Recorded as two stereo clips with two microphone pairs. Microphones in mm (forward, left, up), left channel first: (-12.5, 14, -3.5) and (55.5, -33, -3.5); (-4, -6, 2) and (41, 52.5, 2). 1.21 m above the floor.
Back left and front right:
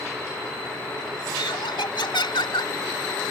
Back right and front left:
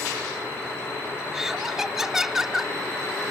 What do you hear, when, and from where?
1.3 s laughter: 135° left